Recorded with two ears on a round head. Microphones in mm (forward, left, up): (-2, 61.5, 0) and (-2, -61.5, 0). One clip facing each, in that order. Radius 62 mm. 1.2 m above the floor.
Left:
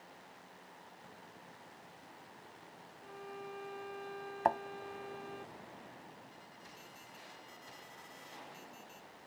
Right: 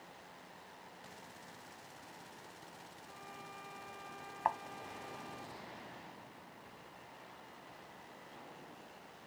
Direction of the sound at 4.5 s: 55° left (ahead or behind).